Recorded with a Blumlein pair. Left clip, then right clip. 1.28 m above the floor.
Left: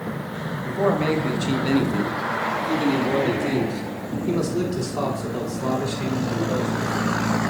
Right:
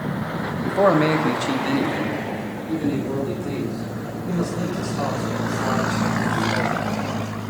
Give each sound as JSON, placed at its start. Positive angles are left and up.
{"t": 0.6, "sound": "a man speaking", "azimuth_deg": -30, "distance_m": 1.0}